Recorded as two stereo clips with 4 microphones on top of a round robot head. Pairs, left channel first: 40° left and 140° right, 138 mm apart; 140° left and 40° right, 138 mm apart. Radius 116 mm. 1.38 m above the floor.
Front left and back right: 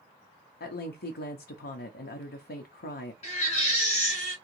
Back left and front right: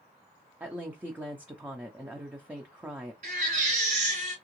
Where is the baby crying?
5° right, 2.5 m.